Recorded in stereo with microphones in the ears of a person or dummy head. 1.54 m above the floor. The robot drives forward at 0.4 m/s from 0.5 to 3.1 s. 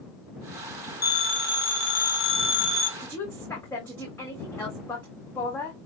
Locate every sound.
1.0 s a phone ringing: 50° left (ahead or behind), 1.0 m
3.0 s a woman speaking: 10° left (ahead or behind), 1.1 m